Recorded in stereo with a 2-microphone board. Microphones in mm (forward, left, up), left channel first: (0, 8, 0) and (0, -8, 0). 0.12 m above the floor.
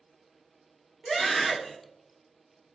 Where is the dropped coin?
I don't hear a dropped coin.